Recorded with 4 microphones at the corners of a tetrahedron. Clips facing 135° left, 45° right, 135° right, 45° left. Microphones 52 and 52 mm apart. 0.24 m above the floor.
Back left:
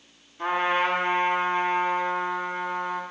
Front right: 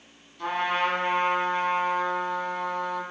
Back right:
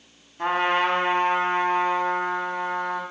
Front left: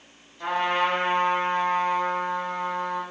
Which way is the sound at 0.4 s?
165° right.